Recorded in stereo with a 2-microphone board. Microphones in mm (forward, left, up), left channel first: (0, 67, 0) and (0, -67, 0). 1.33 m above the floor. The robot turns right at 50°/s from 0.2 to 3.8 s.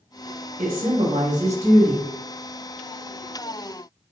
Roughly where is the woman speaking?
Right.